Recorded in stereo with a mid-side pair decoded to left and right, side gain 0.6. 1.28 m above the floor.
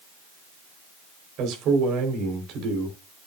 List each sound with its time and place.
1.4 s a man speaking: 65° right, 4 m